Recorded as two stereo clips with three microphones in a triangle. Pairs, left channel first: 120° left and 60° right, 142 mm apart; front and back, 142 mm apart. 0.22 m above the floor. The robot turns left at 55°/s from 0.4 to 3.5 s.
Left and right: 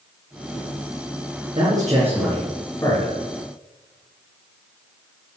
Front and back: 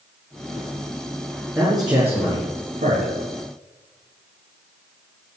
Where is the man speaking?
105° right, 3.5 m; by 3.1 s 165° left, 3.5 m.